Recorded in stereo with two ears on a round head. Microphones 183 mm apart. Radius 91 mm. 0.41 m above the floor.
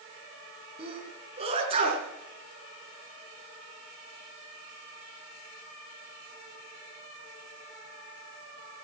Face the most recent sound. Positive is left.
turn(degrees=-30)  # may be behind; listen again after turning